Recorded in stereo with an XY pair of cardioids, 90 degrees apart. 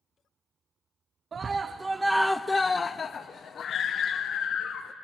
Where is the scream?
50° right, 0.7 m; by 4.9 s 70° left, 1.5 m.